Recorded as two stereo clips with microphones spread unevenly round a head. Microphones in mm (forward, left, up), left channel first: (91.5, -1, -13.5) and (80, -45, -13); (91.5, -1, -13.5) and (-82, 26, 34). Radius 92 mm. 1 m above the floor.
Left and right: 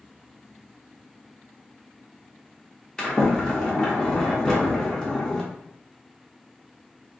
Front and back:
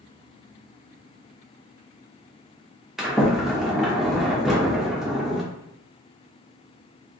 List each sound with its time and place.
3.0 s a sliding door: 125° left, 0.6 m